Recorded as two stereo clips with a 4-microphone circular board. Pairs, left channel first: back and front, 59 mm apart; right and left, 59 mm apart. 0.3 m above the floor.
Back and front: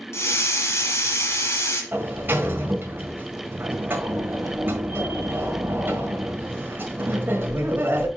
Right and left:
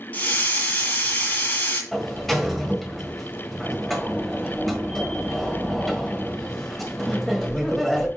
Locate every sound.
0.1 s a hiss: 150° right, 1.7 m
1.9 s a sliding door: 5° right, 1.6 m